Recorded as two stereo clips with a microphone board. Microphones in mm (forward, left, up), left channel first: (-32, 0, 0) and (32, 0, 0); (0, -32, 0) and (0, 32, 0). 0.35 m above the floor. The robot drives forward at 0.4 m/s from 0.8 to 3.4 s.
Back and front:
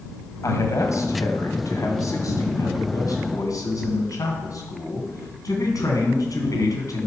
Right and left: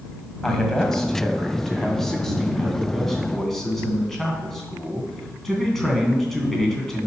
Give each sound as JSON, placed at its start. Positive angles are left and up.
{"t": 0.4, "sound": "a man speaking", "azimuth_deg": -170, "distance_m": 1.9}